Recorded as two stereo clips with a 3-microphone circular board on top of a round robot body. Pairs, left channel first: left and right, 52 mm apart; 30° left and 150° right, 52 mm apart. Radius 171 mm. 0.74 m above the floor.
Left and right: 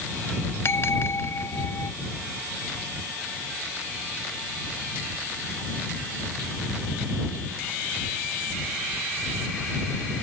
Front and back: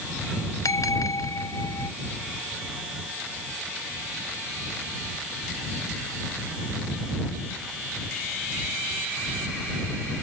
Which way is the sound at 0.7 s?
45° left.